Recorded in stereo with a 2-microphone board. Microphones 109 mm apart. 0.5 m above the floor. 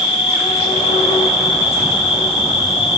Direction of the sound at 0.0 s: 60° left (ahead or behind).